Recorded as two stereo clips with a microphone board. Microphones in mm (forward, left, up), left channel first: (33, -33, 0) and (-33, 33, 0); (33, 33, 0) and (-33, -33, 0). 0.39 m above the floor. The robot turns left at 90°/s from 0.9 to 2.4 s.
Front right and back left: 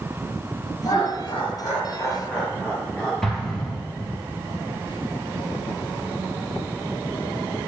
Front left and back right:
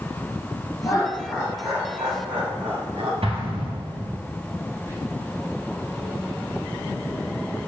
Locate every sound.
0.8 s laughter: 5° left, 3 m; by 3.1 s 130° right, 3 m
3.2 s an explosion: 130° right, 2 m
4.9 s whispering: 70° right, 2 m